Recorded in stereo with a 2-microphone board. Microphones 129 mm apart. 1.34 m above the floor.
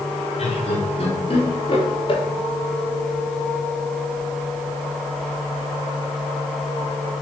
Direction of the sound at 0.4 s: 60° left (ahead or behind).